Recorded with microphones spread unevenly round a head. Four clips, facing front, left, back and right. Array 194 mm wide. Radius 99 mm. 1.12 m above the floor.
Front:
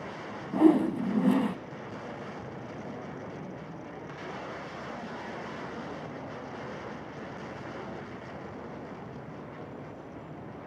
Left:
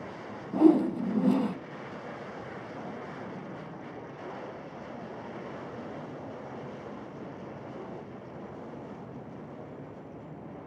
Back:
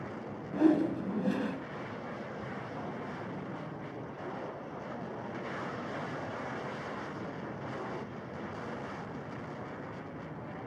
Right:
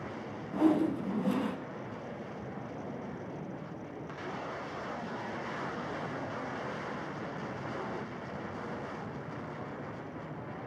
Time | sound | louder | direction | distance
0.5 | a whoosh | left 6 dB, front 4 dB | 55° left | 1.2 m